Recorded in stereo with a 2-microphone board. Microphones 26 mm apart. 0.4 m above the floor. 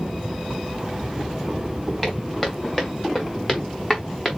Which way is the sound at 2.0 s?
10° left (ahead or behind).